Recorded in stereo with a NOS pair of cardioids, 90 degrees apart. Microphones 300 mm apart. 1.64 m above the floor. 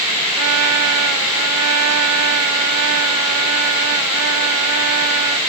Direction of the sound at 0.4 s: 70° right.